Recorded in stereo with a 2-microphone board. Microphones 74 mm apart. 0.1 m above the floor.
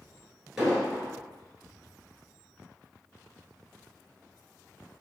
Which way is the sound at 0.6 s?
10° right (ahead or behind).